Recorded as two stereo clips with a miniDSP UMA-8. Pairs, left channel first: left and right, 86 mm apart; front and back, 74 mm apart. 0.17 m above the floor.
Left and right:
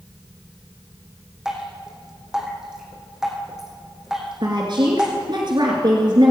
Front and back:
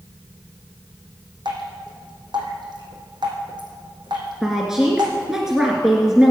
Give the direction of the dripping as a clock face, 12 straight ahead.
6 o'clock.